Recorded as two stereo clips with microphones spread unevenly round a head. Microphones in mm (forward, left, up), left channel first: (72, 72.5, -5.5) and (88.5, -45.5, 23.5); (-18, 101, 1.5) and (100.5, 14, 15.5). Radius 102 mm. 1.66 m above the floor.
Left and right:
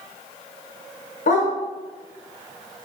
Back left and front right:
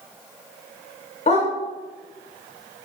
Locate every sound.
1.3 s a dog barking: 105° left, 2.5 m